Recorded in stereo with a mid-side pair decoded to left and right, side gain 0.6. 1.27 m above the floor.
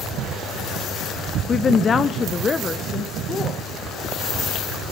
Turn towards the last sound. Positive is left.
turn(degrees=30)